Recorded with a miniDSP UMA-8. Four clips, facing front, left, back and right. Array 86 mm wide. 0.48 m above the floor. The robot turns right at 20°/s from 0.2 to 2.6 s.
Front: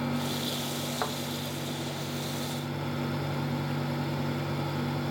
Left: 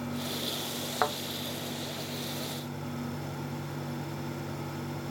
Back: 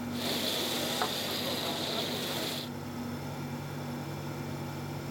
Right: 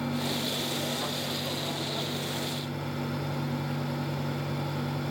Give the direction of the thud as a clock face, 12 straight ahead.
9 o'clock.